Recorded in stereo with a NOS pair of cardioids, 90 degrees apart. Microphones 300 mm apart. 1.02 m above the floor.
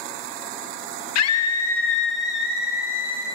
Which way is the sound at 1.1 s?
60° left.